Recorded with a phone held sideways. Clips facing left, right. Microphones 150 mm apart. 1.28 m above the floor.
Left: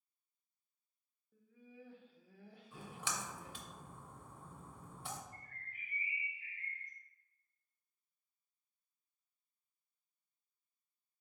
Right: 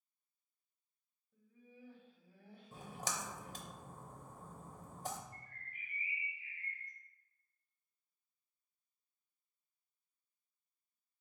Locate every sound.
1.3 s laughter: 70° left (ahead or behind), 0.9 m
2.7 s a splash: 35° right (ahead or behind), 0.5 m
5.3 s a bird: 80° left, 1.4 m